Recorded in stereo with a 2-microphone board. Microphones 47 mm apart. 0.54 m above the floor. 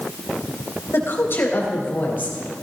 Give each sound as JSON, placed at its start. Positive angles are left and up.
{"t": 0.9, "sound": "a woman speaking", "side_deg": 60, "distance_m": 3.0}